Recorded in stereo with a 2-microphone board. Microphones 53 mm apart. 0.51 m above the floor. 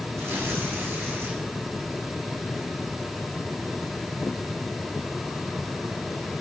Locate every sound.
0.2 s tearing paper: 65° right (ahead or behind), 5.5 m